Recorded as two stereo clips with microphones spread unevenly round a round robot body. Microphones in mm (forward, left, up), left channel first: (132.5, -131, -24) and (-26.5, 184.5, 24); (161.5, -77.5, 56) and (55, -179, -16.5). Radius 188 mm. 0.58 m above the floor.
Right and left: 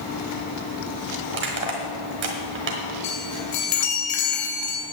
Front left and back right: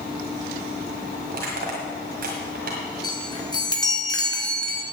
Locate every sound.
1.3 s crushing: straight behind, 1.5 m
3.0 s a chime: 30° right, 2.5 m